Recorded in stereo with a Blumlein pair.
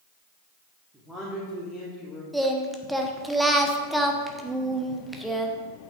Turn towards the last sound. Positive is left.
turn(degrees=-5)